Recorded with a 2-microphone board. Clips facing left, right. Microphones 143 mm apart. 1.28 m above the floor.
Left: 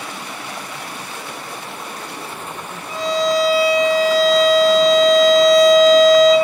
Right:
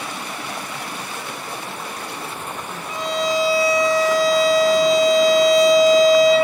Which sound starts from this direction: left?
A violin, at 2.9 s.